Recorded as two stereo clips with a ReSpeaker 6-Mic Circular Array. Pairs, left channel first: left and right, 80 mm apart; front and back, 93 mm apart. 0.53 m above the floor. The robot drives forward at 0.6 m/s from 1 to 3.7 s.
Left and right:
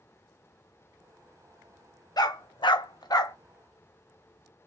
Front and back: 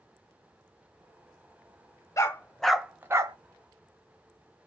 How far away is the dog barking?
About 0.6 m.